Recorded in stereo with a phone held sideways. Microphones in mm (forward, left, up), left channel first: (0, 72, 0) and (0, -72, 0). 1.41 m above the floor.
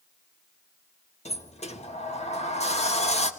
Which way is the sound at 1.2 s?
50° left (ahead or behind).